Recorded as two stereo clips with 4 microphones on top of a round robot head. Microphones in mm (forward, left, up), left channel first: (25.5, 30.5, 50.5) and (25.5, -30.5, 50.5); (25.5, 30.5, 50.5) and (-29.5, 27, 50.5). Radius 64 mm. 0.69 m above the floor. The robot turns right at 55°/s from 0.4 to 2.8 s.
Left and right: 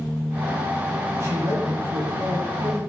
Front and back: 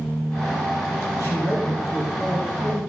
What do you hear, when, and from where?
1.1 s a man speaking: 145° right, 6.5 m; by 2.8 s 55° right, 6.5 m